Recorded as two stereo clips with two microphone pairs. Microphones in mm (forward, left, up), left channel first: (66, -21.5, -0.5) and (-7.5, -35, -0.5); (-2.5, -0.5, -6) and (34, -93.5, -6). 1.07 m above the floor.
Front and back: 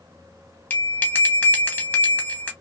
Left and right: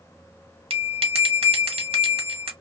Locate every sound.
0.7 s a bell: 55° right, 1.0 m